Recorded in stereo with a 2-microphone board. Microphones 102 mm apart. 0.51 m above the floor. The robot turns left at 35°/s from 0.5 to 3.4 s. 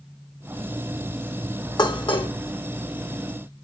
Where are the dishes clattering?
45° left (ahead or behind), 1.4 m; by 2.3 s 60° left (ahead or behind), 1.4 m.